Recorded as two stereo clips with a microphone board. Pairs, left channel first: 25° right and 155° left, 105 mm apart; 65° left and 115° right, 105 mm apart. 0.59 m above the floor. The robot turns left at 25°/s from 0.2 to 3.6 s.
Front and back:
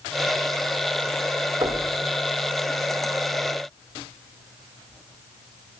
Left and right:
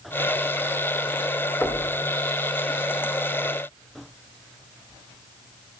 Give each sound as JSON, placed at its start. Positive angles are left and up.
{"t": 1.6, "sound": "knocking", "azimuth_deg": 125, "distance_m": 1.6}